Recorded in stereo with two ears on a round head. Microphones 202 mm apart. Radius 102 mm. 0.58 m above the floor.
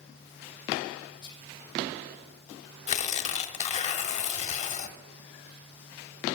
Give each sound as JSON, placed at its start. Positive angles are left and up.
{"t": 1.2, "sound": "whispering", "side_deg": 20, "distance_m": 2.5}
{"t": 2.9, "sound": "tearing paper", "side_deg": 30, "distance_m": 0.9}